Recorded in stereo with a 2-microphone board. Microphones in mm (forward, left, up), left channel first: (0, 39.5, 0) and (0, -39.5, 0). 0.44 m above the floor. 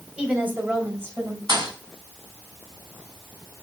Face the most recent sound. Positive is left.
turn(degrees=-80)